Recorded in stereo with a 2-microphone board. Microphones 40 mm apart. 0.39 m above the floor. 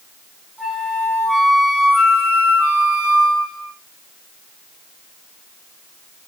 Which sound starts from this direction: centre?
A flute, at 0.6 s.